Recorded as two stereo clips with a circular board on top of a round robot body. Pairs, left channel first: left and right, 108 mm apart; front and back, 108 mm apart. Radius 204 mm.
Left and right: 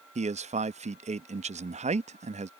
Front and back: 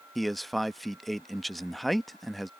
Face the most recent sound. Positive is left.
turn(degrees=-90)